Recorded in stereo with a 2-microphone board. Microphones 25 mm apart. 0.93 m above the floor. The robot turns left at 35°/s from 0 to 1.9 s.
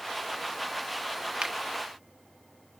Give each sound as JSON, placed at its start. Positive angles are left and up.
{"t": 1.4, "sound": "a finger snap", "side_deg": -40}